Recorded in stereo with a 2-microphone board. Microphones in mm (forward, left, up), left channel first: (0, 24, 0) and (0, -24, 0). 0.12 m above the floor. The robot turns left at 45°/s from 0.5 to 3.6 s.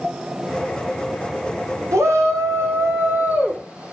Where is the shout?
85° right, 7.5 m; by 3.9 s 165° right, 7.5 m.